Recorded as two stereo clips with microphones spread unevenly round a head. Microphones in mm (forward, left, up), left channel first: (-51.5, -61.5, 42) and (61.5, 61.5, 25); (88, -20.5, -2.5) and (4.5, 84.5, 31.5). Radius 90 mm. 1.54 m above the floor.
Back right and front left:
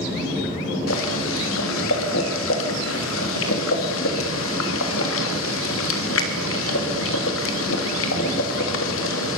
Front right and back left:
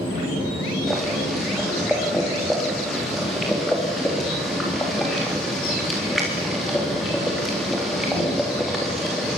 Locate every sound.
0.9 s boiling: 140° right, 3.5 m